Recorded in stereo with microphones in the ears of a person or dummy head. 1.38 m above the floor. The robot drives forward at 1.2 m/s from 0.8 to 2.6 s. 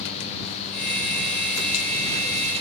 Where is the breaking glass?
No breaking glass in this recording.